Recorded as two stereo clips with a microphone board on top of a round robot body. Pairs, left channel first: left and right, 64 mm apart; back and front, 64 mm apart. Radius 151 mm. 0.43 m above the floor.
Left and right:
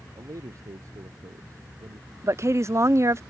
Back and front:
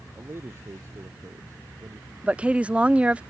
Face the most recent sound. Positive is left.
turn(degrees=-70)